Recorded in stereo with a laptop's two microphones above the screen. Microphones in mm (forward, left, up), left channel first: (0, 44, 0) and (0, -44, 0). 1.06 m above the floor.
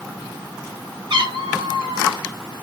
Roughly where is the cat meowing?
Right.